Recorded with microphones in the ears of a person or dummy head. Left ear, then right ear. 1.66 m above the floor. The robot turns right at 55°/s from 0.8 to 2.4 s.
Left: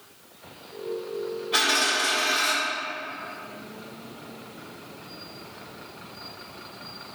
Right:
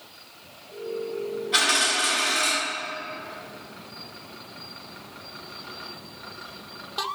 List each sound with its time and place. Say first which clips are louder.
1.5 s a dropped coin: right 1 dB; 165° left, 1.5 m; by 2.5 s 150° right, 1.5 m